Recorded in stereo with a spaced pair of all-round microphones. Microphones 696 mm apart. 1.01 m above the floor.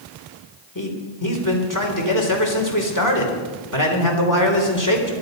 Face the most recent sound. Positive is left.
turn(degrees=30)  # may be behind; listen again after turning